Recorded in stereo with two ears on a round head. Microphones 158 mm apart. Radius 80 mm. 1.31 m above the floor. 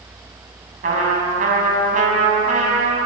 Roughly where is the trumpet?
Right.